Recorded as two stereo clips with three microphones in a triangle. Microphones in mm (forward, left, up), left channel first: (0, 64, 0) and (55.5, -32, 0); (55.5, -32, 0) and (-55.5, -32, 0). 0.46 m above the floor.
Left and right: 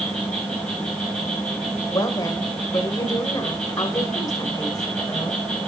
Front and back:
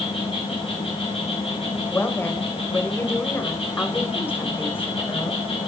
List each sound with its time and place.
0.0 s an insect: 40° left, 7 m
1.9 s a woman speaking: 70° left, 1.8 m